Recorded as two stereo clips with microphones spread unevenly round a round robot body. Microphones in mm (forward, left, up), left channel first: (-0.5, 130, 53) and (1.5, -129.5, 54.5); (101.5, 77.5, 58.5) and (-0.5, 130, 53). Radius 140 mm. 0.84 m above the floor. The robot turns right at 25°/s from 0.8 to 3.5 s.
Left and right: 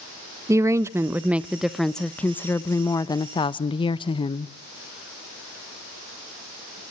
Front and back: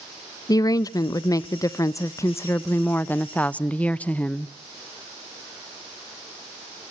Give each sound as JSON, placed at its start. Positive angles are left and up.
{"t": 0.5, "sound": "a woman speaking", "azimuth_deg": -20, "distance_m": 0.5}